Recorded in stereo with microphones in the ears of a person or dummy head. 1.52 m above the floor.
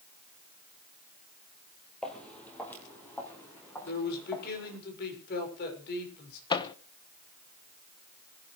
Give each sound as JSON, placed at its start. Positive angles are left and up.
{"t": 2.0, "sound": "footsteps", "side_deg": 5, "distance_m": 3.0}
{"t": 3.9, "sound": "a man speaking", "side_deg": 55, "distance_m": 6.0}
{"t": 6.5, "sound": "a microwave", "side_deg": 25, "distance_m": 0.8}